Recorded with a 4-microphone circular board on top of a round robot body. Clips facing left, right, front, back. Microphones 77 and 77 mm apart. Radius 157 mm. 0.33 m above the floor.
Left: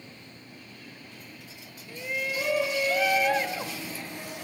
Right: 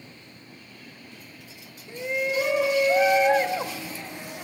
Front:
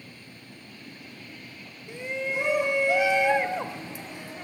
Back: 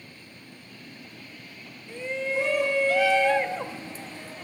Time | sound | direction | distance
1.9 | a shout | 55° right | 1.1 m